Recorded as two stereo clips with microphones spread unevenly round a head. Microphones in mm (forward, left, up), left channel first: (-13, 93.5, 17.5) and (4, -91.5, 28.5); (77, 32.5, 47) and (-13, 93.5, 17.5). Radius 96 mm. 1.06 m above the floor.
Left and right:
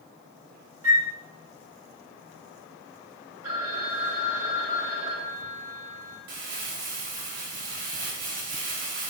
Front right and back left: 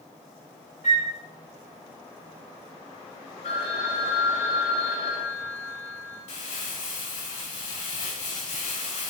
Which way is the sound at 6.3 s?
40° right.